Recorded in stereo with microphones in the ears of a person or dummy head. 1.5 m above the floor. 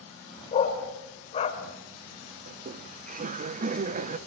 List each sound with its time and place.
0.5 s a dog barking: 40° left (ahead or behind), 2.5 m
2.5 s laughter: 40° right (ahead or behind), 0.9 m